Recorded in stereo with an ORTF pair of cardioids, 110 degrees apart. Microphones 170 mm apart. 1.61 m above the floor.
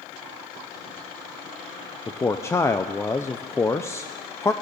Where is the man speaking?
20° left, 0.7 m.